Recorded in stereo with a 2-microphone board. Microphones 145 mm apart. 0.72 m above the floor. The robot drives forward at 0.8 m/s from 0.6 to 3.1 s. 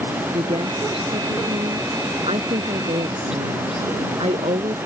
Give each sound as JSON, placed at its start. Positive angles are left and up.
{"t": 0.3, "sound": "a woman speaking", "side_deg": -40}